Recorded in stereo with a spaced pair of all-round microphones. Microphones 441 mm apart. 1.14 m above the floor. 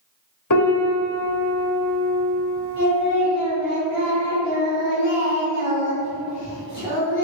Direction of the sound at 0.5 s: 45° left (ahead or behind).